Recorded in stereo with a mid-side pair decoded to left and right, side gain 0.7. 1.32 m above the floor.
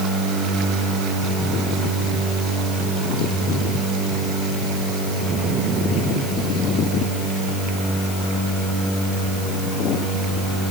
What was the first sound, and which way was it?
Only background noise.